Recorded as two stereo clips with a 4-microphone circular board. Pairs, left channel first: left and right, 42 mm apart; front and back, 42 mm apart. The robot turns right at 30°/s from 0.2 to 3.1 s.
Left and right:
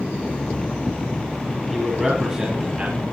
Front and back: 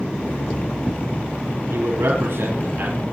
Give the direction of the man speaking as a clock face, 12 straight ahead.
6 o'clock.